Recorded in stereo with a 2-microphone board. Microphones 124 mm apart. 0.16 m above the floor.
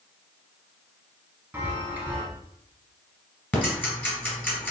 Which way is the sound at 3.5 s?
15° left (ahead or behind).